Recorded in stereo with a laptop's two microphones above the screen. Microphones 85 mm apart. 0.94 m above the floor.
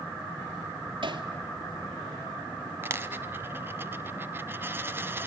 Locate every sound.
1.0 s hammering: 70° right (ahead or behind), 2 m
2.8 s a dropped coin: 25° right (ahead or behind), 0.9 m